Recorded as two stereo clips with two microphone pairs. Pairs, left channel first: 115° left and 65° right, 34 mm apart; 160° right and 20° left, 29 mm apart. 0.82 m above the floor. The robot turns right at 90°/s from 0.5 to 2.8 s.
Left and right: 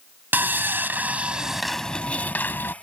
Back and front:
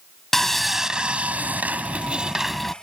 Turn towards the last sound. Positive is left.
turn(degrees=130)